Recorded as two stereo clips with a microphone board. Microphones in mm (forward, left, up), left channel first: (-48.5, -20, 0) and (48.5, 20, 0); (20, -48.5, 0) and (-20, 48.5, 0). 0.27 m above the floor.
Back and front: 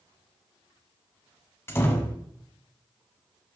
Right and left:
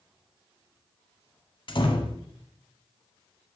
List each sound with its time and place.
1.7 s a door slam: 95° right, 1.3 m